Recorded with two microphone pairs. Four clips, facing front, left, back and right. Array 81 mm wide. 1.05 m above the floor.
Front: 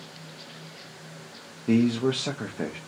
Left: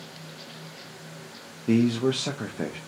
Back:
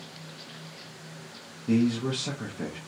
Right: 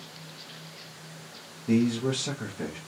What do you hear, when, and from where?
1.7 s a man speaking: 40° left, 0.5 m